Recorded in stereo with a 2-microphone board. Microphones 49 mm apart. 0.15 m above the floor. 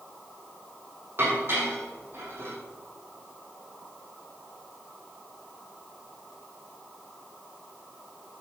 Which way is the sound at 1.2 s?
55° right (ahead or behind).